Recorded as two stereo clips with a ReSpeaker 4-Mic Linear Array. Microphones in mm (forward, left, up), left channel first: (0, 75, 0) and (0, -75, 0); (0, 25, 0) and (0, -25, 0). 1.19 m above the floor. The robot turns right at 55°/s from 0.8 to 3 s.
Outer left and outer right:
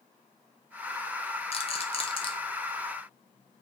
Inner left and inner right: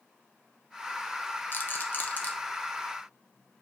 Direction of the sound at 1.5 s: 40° left (ahead or behind).